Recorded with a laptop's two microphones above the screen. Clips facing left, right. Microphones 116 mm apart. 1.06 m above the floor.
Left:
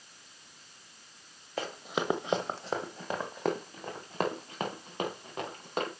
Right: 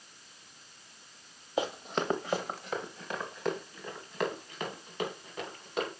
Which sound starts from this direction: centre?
Running footsteps, at 1.6 s.